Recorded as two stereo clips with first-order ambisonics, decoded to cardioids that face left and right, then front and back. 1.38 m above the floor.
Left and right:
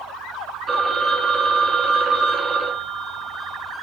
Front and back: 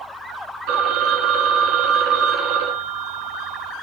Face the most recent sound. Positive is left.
turn(degrees=-160)